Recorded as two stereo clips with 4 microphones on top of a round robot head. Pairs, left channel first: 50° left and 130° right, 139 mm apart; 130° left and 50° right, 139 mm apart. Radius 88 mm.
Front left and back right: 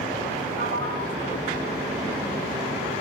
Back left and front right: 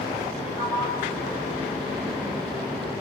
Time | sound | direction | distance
0.6 | a sliding door | 140° right | 5.5 m